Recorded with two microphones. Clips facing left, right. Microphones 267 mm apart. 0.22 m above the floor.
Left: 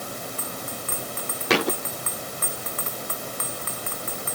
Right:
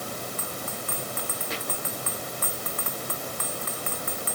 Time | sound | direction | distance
1.5 | a thud | 90° left | ?